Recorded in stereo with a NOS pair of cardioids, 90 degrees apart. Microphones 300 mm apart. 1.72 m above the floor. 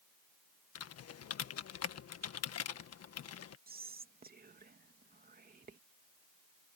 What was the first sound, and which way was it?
Typing on a keyboard, 55° left.